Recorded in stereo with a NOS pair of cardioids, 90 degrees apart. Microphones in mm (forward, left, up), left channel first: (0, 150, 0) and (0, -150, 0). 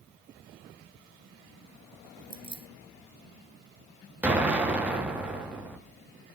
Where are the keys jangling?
15° right, 1.4 m.